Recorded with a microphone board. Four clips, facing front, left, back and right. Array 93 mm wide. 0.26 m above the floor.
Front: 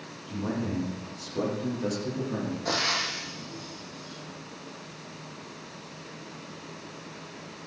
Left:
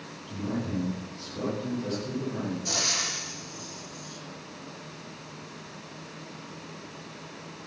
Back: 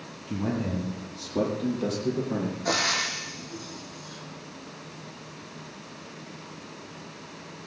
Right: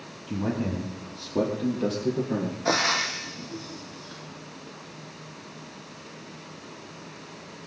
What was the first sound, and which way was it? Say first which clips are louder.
A man speaking: right 4 dB, back 2 dB; 125° right.